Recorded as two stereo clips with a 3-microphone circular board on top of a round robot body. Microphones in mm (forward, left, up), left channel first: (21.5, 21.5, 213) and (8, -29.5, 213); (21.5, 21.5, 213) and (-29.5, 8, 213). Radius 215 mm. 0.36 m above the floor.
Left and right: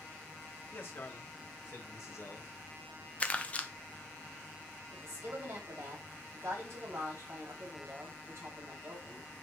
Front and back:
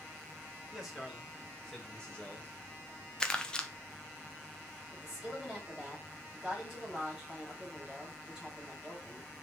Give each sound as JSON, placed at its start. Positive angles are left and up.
{"t": 0.7, "sound": "a man speaking", "azimuth_deg": 110, "distance_m": 3.0}
{"t": 3.2, "sound": "crumpling", "azimuth_deg": 70, "distance_m": 1.1}
{"t": 4.9, "sound": "a woman speaking", "azimuth_deg": -85, "distance_m": 4.0}